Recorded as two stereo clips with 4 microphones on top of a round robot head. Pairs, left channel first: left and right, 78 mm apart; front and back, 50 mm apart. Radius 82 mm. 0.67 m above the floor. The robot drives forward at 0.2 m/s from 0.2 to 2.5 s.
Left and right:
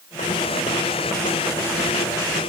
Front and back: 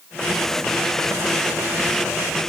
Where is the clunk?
No clunk in this recording.